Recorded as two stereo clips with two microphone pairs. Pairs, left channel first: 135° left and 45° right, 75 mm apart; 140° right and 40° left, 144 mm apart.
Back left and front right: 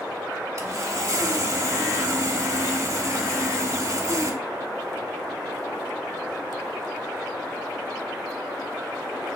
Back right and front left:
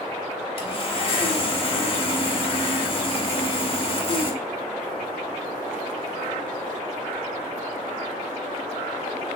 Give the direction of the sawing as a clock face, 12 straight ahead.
3 o'clock.